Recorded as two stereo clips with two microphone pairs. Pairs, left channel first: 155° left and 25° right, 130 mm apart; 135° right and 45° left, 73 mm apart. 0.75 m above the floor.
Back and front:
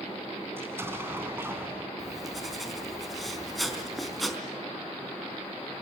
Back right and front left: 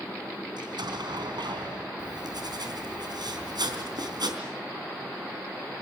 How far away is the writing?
About 3.5 m.